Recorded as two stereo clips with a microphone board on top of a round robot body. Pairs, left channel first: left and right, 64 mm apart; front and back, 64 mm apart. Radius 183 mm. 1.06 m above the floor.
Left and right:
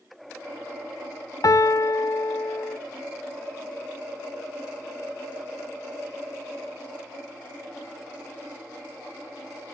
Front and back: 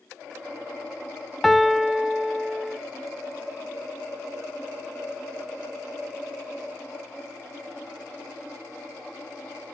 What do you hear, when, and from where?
1.4 s a piano: 85° left, 0.9 m